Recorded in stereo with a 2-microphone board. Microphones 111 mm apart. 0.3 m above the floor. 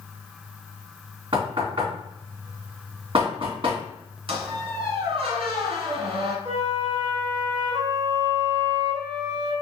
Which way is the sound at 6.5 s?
50° right (ahead or behind).